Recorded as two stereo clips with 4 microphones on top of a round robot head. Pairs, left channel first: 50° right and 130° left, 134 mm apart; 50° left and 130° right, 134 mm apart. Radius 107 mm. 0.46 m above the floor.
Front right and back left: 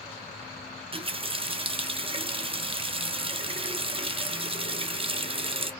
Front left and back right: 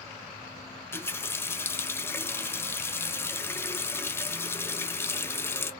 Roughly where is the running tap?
Behind left.